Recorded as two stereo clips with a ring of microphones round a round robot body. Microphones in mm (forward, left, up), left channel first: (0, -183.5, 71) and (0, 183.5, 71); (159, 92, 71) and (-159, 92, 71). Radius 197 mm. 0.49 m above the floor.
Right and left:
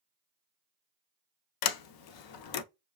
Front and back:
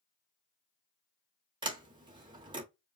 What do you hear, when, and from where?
1.6 s a sliding door: 105° right, 0.6 m